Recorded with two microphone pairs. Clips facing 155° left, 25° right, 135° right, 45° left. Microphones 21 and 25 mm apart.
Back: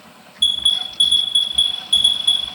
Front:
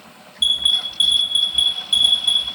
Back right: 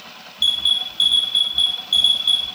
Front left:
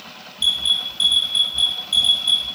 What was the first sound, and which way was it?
An alarm, 115° right.